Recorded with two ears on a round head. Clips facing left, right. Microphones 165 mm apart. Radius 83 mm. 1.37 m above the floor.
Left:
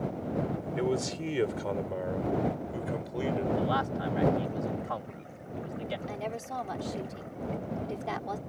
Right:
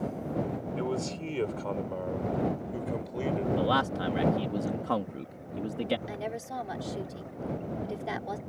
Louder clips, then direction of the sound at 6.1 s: Even; 10° right (ahead or behind).